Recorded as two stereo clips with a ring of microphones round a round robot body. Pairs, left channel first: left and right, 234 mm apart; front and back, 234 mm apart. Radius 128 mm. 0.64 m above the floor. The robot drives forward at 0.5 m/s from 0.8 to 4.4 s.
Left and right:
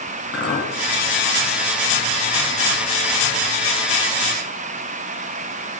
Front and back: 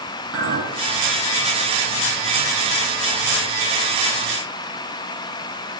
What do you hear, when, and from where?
0.3 s a clink: 135° left, 3.5 m